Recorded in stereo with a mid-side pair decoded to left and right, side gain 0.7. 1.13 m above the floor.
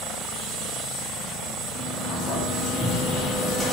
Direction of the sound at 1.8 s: 25° right.